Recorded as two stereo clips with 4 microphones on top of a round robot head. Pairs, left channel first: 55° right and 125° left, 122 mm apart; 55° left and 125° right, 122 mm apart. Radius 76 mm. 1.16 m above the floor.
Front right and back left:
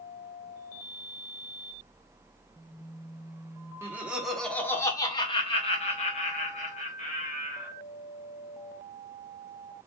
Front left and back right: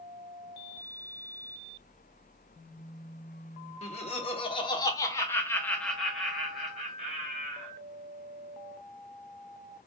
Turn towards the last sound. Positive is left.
turn(degrees=-45)